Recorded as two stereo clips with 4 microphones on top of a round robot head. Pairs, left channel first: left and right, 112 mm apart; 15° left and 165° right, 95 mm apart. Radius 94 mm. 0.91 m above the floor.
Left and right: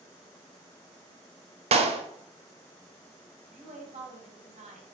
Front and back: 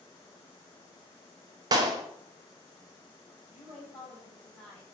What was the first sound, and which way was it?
A clap, 115° right.